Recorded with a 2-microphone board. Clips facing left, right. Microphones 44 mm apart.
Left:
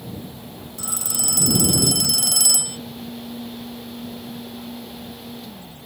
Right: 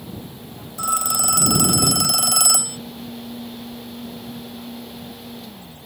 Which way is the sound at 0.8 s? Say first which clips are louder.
Right 11 dB; 65° right (ahead or behind).